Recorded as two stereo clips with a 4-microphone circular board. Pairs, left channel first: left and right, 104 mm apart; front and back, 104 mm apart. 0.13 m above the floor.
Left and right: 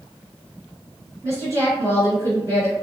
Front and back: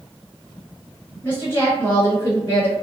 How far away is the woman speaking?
About 1.7 m.